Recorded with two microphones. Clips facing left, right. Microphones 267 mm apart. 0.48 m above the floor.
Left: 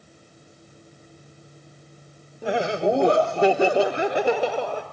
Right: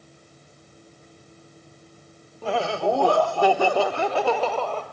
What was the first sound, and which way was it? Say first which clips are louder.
Laughter: left 2 dB; 15° left (ahead or behind).